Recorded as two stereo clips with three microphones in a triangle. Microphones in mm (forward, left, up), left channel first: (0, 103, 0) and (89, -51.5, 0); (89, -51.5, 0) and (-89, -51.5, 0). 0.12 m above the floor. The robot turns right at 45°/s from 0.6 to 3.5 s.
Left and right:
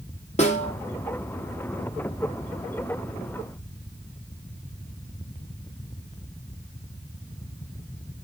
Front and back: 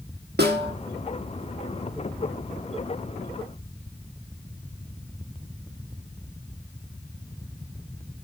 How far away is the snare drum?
About 4.5 m.